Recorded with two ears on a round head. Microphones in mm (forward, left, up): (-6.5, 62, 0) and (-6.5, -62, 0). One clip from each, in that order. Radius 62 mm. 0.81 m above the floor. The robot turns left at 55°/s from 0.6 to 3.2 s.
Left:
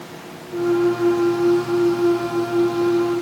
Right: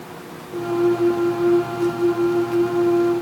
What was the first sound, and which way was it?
Only background noise.